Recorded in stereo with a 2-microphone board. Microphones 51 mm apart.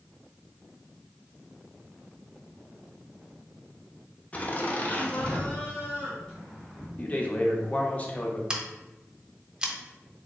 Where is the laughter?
25° left (ahead or behind), 0.7 m; by 6.9 s 10° left (ahead or behind), 1.8 m.